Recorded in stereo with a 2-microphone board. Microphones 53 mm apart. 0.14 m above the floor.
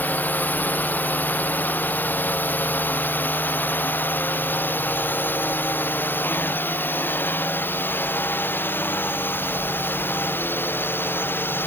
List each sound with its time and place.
0.0 s a drone: 35° left (ahead or behind); by 11.7 s 40° left (ahead or behind)